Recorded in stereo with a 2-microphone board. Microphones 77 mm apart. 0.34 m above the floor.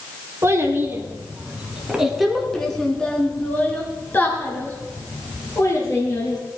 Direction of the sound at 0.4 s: 35° right (ahead or behind).